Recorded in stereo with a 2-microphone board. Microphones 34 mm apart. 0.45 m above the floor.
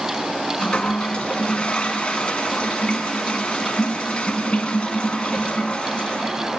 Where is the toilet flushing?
30° left (ahead or behind), 2 m.